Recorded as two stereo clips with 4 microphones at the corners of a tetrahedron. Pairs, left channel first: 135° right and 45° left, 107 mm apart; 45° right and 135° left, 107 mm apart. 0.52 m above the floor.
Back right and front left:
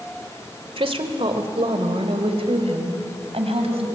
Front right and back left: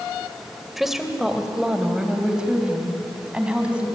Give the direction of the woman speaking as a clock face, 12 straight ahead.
10 o'clock.